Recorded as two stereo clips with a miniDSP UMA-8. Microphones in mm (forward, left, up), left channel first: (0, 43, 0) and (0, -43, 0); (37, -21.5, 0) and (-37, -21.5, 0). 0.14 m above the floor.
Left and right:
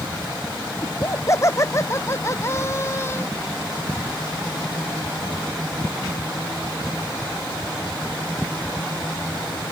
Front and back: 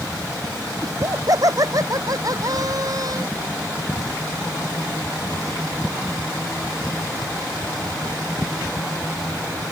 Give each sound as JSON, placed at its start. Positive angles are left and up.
{"t": 0.8, "sound": "laughter", "azimuth_deg": 145}